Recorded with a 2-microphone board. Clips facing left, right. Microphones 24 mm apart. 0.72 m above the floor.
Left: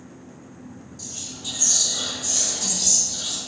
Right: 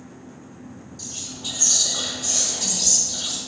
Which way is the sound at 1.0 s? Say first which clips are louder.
Right 2 dB; 20° right (ahead or behind).